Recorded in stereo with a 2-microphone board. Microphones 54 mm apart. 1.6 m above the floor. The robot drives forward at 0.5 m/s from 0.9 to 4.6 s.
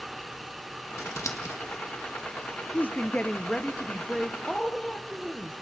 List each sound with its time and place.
1.0 s scissors: 80° left, 2 m
2.7 s a woman speaking: 35° left (ahead or behind), 0.6 m; by 5.5 s 15° left (ahead or behind), 1.5 m